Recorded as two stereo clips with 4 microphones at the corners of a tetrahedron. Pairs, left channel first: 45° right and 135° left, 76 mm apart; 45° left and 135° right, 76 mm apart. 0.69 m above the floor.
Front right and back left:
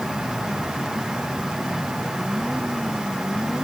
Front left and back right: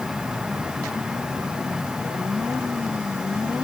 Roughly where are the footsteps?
I don't hear footsteps.